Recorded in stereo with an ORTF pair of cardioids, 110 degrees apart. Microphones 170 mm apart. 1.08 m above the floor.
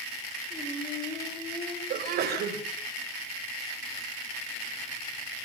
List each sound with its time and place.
0.5 s singing: 25° left, 9.5 m
1.9 s a sneeze: 70° right, 5 m